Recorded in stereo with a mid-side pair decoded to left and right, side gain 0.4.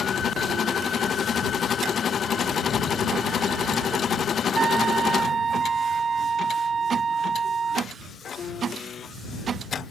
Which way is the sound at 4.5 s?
45° right.